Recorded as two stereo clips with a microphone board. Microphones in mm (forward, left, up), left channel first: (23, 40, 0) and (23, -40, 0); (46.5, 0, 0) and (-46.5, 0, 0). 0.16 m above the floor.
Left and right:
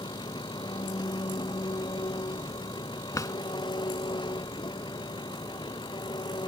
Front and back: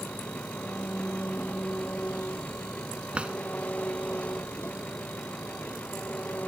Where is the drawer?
110° left.